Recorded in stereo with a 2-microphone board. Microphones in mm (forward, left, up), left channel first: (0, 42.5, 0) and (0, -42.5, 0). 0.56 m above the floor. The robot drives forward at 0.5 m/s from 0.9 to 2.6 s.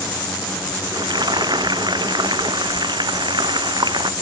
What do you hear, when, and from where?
0.9 s frying: 60° right (ahead or behind); by 4.1 s 65° right (ahead or behind)